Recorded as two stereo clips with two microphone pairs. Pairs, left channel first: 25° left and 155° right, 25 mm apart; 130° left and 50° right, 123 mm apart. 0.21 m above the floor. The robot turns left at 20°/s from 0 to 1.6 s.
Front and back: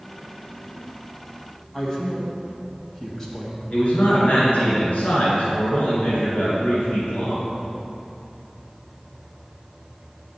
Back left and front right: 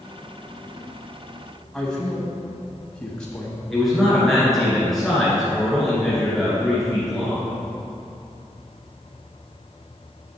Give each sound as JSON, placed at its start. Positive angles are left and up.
{"t": 1.7, "sound": "a man speaking", "azimuth_deg": 55, "distance_m": 1.4}
{"t": 3.7, "sound": "a man speaking", "azimuth_deg": 40, "distance_m": 2.5}